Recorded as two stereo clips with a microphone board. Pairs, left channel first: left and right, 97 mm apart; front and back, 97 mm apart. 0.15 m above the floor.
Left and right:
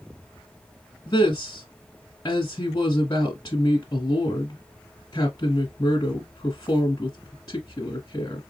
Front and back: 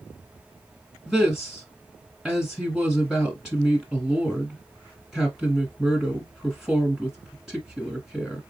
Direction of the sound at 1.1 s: 95° left.